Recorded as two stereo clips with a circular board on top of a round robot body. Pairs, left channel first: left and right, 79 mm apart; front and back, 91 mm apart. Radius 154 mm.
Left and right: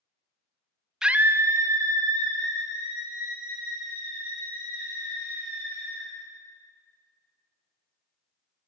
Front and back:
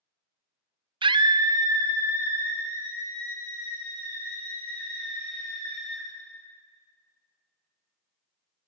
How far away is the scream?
About 0.5 m.